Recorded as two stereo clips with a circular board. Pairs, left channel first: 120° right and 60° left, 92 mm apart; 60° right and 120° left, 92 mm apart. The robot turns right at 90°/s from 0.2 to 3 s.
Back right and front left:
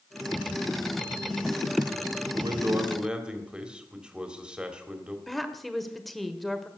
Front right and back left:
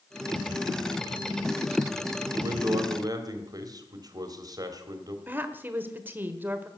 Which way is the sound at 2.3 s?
75° left.